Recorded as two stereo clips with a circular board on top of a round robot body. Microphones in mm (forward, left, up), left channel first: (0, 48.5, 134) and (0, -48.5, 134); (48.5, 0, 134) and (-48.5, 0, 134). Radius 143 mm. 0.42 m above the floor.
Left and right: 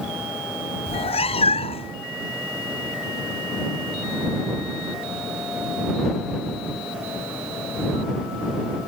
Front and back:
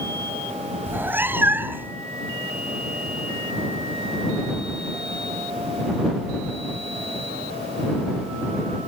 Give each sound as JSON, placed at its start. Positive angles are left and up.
{"t": 0.9, "sound": "a cat meowing", "azimuth_deg": 110}